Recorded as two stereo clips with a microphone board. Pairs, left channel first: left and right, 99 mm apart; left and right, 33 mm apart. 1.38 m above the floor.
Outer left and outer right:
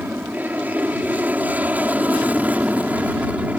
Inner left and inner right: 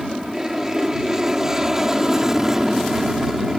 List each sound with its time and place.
0.0 s an aircraft: 15° right (ahead or behind)